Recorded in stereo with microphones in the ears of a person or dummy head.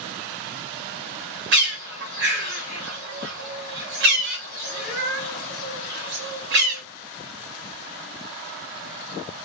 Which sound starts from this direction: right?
A bird, at 1.5 s.